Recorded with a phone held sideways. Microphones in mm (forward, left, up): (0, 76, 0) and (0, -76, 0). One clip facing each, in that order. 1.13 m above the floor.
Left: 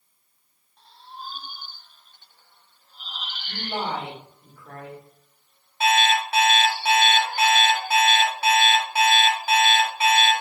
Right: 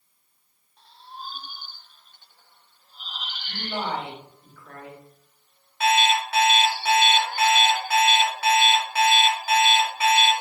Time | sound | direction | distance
3.5 | a woman speaking | 20° left (ahead or behind) | 1.0 m
5.8 | an alarm clock | 25° left (ahead or behind) | 1.1 m